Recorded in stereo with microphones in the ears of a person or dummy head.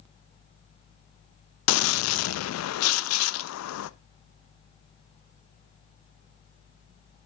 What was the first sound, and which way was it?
A gunshot, 85° left.